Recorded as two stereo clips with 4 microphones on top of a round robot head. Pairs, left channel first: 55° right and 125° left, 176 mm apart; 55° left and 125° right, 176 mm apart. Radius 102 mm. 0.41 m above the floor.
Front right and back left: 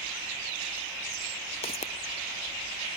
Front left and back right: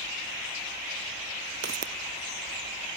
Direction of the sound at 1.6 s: 105° right.